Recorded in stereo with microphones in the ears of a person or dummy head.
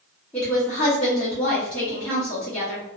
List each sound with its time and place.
0.3 s a woman speaking: 5° left (ahead or behind), 0.8 m